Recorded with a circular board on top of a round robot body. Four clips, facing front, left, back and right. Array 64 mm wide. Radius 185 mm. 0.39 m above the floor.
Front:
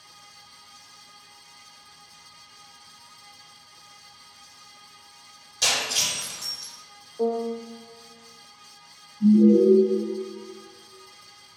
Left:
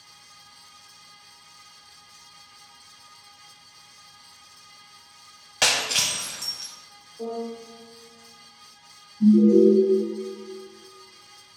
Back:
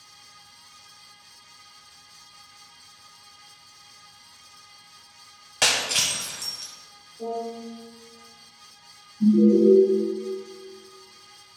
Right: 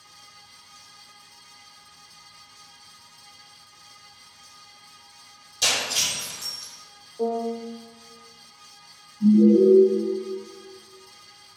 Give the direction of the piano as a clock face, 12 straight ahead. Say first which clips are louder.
Right 6 dB, front 5 dB; 1 o'clock.